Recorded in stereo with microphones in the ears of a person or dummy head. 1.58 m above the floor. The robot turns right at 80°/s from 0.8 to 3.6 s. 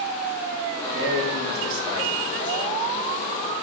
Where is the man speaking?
105° right, 2 m; by 2.8 s 45° left, 2 m.